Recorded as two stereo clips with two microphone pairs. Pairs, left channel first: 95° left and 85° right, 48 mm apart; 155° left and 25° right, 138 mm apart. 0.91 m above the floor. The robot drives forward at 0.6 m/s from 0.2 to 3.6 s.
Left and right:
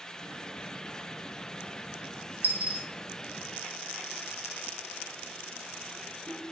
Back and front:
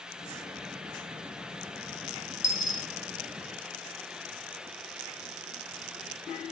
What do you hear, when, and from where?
2.4 s a dropped coin: 135° right, 0.5 m; by 2.9 s 150° right, 0.7 m